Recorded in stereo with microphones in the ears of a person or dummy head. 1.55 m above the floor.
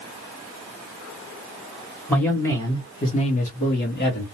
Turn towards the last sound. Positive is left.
turn(degrees=60)  # may be behind; listen again after turning